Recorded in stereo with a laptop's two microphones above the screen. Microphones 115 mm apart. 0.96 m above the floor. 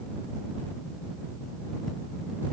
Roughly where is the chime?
I don't hear a chime.